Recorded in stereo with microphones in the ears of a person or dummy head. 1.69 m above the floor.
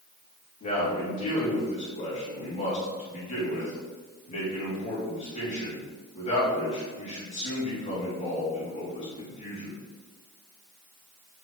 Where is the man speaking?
30° left (ahead or behind), 3 m.